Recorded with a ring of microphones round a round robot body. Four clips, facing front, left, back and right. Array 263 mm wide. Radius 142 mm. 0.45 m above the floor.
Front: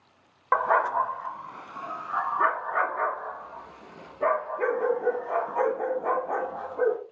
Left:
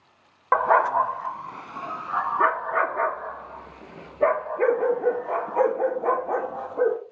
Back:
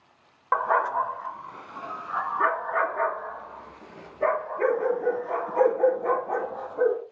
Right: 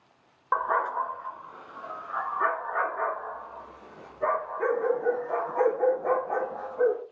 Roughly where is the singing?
I don't hear singing.